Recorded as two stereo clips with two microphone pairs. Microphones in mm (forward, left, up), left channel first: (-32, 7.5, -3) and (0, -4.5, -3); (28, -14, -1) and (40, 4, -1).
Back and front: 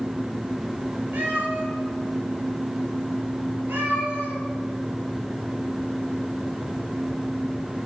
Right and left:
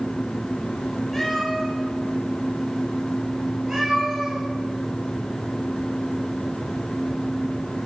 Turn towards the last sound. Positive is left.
turn(degrees=-10)